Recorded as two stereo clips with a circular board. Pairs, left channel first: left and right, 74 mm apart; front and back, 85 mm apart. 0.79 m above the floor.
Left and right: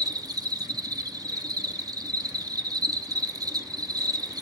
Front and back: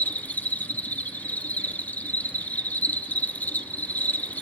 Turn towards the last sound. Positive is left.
turn(degrees=-70)